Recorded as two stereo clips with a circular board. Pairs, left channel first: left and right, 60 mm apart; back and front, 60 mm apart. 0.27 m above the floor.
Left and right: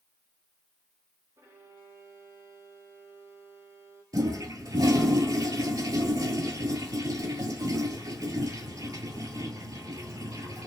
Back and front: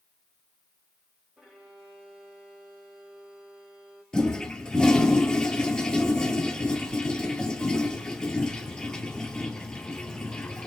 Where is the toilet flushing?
100° right, 1.0 m.